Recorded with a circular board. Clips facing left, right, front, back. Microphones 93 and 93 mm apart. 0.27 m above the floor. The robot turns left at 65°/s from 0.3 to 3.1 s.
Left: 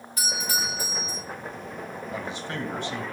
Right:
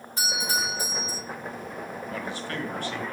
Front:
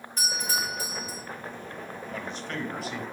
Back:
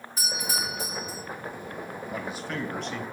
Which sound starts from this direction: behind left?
A man speaking, at 2.1 s.